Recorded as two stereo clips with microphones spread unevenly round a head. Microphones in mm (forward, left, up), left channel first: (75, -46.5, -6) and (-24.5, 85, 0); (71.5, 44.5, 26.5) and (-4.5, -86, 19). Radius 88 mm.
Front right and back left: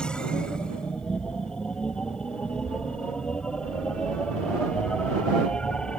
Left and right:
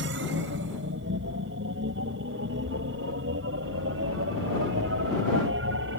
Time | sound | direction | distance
0.0 | a machine running | 140° right | ?